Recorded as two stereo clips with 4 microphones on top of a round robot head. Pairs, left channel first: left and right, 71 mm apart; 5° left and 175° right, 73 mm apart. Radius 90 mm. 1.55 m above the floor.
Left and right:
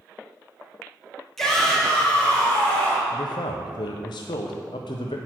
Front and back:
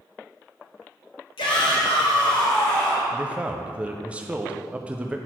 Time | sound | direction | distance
1.4 | a shout | 5° left | 1.5 m
3.1 | a man speaking | 110° left | 0.6 m